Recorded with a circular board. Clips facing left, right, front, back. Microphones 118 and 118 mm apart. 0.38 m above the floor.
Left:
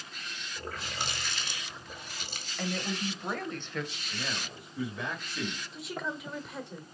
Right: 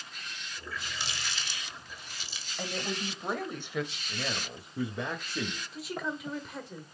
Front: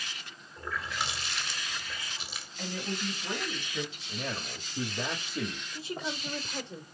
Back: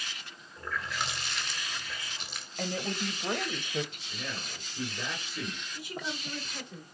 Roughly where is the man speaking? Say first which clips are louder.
Right 2 dB, front 3 dB; ahead right.